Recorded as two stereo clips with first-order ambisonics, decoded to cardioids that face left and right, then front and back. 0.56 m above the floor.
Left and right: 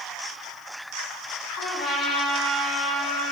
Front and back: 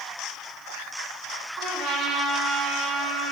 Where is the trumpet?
140° left, 5 m.